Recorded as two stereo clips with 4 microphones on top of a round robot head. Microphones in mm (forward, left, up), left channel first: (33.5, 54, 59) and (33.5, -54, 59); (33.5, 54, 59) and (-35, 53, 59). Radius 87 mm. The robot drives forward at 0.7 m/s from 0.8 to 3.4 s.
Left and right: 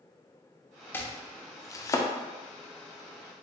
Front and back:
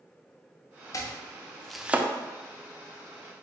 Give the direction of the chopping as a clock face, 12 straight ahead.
11 o'clock.